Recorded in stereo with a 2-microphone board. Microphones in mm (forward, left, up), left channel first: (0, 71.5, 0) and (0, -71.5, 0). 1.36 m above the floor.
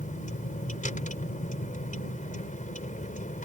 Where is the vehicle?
75° left (ahead or behind).